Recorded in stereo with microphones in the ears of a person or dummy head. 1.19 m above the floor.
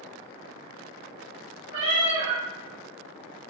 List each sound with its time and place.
1.7 s a cat meowing: 25° right (ahead or behind), 1.8 m